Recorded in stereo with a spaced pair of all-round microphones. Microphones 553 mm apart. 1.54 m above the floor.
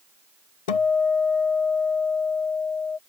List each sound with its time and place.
0.7 s a guitar: 80° left